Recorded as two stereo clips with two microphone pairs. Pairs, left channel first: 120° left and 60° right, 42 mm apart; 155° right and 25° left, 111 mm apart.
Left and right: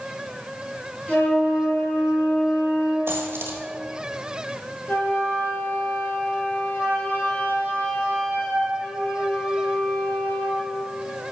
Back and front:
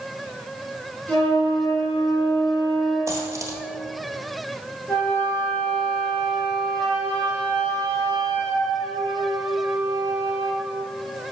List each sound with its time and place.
1.1 s a flute: 130° left, 2.5 m
3.1 s a dropped coin: 40° right, 1.3 m
4.9 s a flute: 130° left, 2.5 m